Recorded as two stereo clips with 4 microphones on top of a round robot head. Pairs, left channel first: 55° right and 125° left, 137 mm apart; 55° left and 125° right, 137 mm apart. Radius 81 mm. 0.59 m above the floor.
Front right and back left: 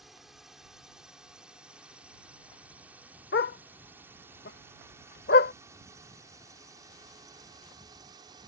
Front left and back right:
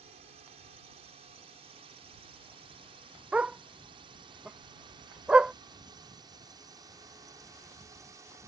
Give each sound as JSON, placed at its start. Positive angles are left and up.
{"t": 0.0, "sound": "a drone", "azimuth_deg": -145}
{"t": 3.3, "sound": "a dog barking", "azimuth_deg": -40}